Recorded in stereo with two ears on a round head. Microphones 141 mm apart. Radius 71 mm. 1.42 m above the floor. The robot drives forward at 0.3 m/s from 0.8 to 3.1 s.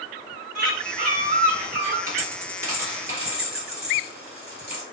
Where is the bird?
55° right (ahead or behind), 1.7 m; by 2.0 s 45° right (ahead or behind), 2.0 m.